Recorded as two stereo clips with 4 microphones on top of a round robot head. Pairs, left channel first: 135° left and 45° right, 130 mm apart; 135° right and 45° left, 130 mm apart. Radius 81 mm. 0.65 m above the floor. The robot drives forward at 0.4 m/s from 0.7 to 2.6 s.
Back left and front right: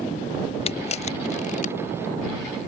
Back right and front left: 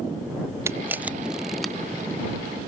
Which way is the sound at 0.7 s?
110° left.